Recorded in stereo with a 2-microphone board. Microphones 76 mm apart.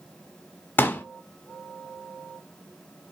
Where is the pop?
30° left (ahead or behind), 0.5 m.